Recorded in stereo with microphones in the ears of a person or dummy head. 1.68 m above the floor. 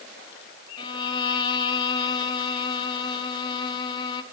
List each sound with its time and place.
0.8 s a violin: 25° left (ahead or behind), 0.7 m